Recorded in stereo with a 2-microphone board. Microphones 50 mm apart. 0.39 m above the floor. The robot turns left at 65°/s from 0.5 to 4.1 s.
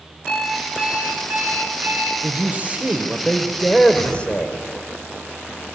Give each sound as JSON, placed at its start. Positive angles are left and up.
{"t": 0.3, "sound": "an alarm clock", "azimuth_deg": 10, "distance_m": 2.5}
{"t": 2.2, "sound": "a man speaking", "azimuth_deg": -95, "distance_m": 1.4}
{"t": 3.9, "sound": "a whoosh", "side_deg": 50, "distance_m": 7.0}